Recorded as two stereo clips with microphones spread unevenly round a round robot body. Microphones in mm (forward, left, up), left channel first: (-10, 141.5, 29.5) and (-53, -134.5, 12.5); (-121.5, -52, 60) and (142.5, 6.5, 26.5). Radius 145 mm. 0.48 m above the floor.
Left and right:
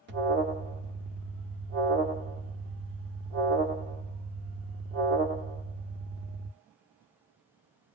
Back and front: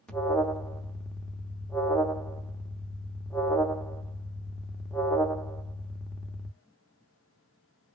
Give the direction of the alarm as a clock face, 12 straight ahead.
2 o'clock.